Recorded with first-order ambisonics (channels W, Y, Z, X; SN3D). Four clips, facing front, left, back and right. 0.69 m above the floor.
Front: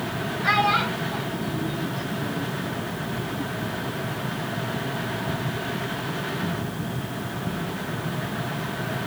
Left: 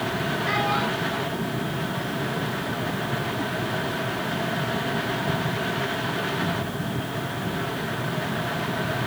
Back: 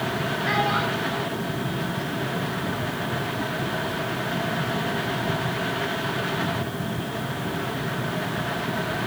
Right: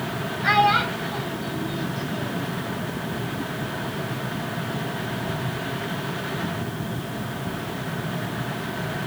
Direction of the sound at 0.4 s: 60° right.